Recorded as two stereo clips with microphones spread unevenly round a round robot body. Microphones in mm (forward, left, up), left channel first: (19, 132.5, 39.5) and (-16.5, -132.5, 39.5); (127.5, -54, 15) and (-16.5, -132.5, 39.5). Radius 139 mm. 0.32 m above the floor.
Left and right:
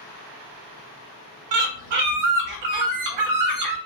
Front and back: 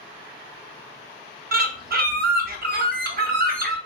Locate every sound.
1.5 s a bird: 115° right, 0.6 m